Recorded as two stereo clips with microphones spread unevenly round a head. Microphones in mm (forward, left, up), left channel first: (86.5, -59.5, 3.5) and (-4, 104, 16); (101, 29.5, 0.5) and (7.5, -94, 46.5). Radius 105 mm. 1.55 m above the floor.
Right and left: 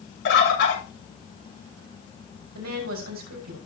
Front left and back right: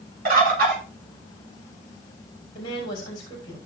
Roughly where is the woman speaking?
Behind left.